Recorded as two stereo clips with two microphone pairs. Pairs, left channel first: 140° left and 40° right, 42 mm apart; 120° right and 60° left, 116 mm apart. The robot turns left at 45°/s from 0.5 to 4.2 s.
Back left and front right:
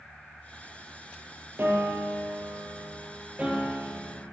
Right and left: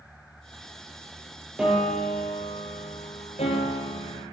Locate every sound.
1.6 s a piano: 20° right, 3.5 m; by 4.2 s 135° right, 3.5 m